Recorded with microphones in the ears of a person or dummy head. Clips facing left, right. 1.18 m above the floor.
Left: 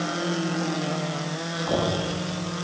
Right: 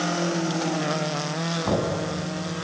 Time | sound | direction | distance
1.6 | knocking | 45° right (ahead or behind) | 7.5 m